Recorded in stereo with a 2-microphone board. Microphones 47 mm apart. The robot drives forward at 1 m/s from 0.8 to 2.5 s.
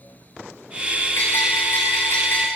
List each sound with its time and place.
1.2 s a bell: 60° left (ahead or behind), 9 m; by 2.5 s 65° left (ahead or behind), 8.5 m